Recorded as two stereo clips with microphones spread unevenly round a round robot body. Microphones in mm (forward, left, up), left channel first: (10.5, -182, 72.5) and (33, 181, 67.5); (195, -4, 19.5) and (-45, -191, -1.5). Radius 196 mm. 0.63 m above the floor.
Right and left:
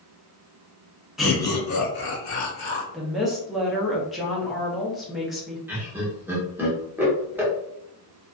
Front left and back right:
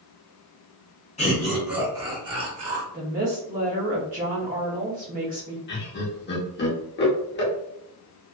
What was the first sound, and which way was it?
Laughter, straight ahead.